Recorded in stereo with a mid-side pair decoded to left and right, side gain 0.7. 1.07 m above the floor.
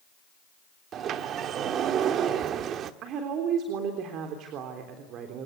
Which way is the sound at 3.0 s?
55° right.